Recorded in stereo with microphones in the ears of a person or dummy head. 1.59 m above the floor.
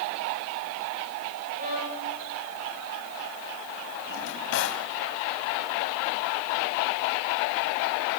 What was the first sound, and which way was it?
A violin, 45° right (ahead or behind).